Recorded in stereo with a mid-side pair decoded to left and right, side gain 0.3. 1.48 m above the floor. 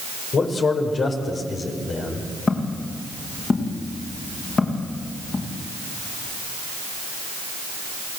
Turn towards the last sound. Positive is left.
turn(degrees=50)